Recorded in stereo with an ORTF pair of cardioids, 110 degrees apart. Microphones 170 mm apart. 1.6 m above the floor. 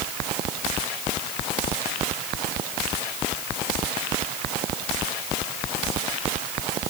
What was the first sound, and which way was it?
Only background noise.